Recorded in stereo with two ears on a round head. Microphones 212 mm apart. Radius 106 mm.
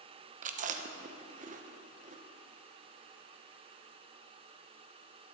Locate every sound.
0.4 s chewing: 35° right (ahead or behind), 0.7 m